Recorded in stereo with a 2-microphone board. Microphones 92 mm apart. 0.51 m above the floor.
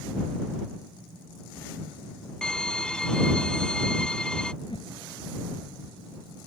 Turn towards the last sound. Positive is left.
turn(degrees=65)  # may be behind; listen again after turning